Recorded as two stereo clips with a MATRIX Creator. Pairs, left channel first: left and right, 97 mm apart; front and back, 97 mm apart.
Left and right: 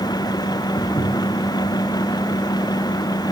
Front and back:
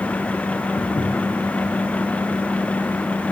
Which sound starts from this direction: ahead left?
Footsteps, at 0.8 s.